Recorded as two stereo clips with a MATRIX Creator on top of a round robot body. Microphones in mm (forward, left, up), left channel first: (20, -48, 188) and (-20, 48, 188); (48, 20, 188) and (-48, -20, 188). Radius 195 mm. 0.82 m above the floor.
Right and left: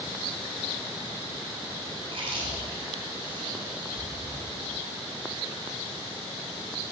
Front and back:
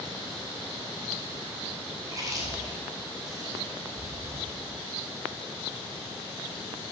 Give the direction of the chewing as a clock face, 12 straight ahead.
7 o'clock.